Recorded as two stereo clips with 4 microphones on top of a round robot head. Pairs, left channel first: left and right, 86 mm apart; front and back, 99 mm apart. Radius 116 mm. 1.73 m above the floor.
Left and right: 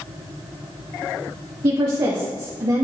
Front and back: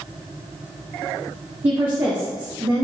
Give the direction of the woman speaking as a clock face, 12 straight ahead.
4 o'clock.